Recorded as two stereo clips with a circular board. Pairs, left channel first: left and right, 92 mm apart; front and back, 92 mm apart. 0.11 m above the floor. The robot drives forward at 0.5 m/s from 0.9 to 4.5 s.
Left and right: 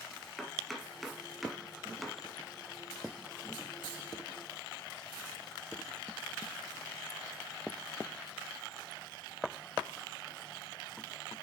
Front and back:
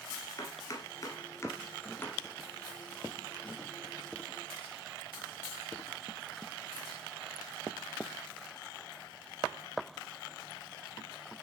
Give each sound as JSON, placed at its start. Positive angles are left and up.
{"t": 0.4, "sound": "chopping", "azimuth_deg": 0, "distance_m": 1.9}